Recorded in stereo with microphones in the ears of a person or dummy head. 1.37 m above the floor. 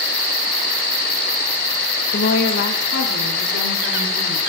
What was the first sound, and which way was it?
A woman speaking, 45° left (ahead or behind).